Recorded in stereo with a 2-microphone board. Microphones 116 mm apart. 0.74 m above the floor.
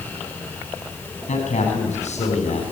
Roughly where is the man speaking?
Left.